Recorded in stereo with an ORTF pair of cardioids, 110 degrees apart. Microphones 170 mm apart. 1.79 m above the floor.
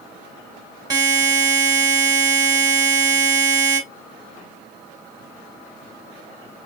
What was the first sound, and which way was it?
A buzzer, 25° right.